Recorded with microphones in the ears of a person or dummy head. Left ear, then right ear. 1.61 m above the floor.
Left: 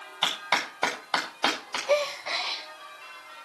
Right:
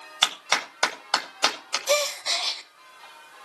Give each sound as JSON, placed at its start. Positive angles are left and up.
{"t": 0.2, "sound": "a clap", "side_deg": -60, "distance_m": 9.0}
{"t": 1.9, "sound": "a gasp", "side_deg": -75, "distance_m": 1.7}